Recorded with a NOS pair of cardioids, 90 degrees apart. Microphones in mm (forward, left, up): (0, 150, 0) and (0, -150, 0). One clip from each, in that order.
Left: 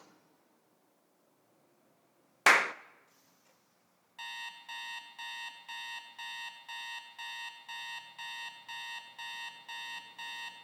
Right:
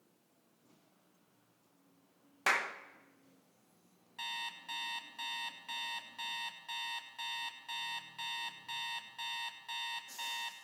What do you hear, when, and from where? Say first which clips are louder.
2.5 s a clap: left 8 dB; 40° left, 0.6 m
4.2 s an alarm clock: right 2 dB; 5° right, 3.5 m